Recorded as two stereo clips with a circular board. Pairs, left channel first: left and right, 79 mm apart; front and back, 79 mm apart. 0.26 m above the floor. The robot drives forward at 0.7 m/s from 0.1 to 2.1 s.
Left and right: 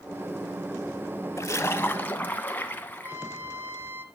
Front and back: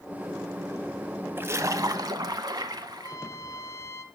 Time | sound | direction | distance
1.4 | a splash | 125° left | 0.5 m
2.9 | a trumpet | 35° right | 0.7 m